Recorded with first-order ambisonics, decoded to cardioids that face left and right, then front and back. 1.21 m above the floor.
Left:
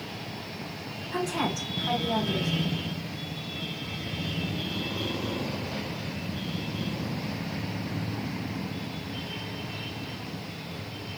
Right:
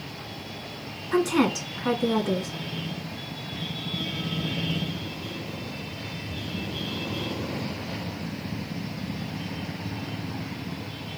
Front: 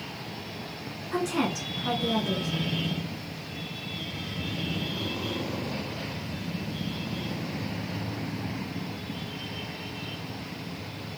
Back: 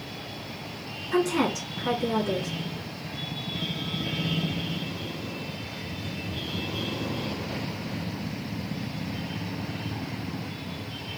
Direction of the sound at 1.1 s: 100° right.